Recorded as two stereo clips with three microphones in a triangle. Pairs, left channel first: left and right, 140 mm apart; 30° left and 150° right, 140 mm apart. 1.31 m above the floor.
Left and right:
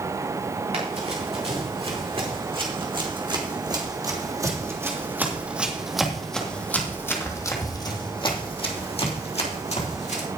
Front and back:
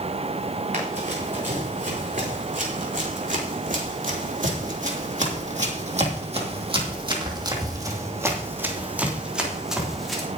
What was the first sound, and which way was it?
Running footsteps, 130° right.